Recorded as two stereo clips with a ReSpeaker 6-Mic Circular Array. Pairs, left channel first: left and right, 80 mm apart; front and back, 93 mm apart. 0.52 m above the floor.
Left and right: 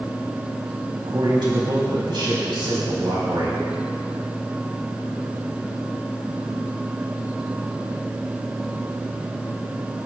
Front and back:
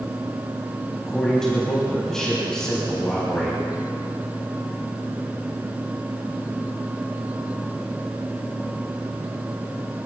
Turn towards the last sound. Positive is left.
turn(degrees=-85)